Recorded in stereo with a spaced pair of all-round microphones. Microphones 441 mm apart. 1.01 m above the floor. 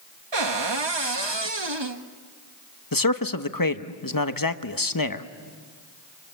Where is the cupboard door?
70° right (ahead or behind), 1.4 m.